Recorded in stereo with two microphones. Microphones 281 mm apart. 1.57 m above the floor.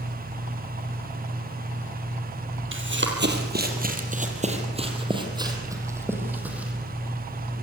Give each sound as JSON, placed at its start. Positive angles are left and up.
{"t": 2.7, "sound": "running footsteps", "side_deg": -45, "distance_m": 3.0}